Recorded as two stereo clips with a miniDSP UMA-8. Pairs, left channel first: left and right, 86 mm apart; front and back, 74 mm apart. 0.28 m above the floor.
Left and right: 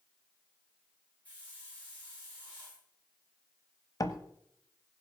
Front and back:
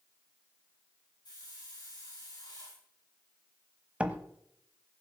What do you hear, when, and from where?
1.2 s a hiss: 20° left, 8.5 m
4.0 s a door slam: 115° left, 0.9 m